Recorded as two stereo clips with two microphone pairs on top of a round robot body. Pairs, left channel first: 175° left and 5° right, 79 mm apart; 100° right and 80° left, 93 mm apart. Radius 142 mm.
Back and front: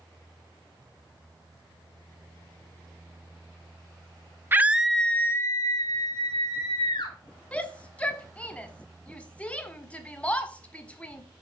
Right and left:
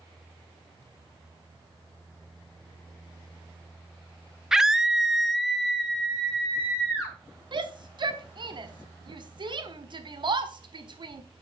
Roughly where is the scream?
Ahead.